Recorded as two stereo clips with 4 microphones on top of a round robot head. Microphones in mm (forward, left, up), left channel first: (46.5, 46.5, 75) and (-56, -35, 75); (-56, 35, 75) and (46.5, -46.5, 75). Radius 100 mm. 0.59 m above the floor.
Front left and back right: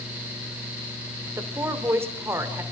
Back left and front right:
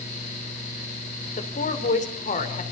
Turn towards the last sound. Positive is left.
turn(degrees=150)